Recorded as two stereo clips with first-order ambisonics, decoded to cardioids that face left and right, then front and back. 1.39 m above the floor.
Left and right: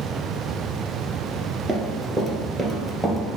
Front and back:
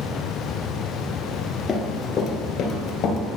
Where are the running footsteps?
40° right, 1.4 m; by 3.2 s straight ahead, 1.7 m.